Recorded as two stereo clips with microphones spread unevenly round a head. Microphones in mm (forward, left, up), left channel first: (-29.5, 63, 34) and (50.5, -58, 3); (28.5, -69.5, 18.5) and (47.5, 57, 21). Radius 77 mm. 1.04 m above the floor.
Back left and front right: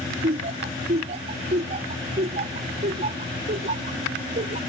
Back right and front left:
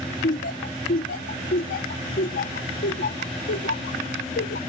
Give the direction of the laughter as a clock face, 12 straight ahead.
3 o'clock.